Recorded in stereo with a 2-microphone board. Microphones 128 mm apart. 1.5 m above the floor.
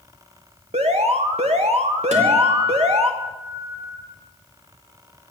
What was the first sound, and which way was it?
An alarm, 55° right (ahead or behind).